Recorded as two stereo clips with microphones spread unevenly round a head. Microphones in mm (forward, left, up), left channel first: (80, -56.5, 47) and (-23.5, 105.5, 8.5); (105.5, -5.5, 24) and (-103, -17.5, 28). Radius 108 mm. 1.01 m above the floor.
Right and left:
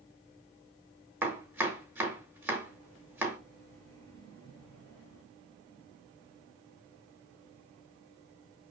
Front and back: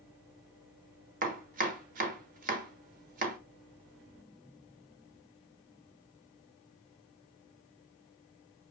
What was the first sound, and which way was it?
Chopping, 145° right.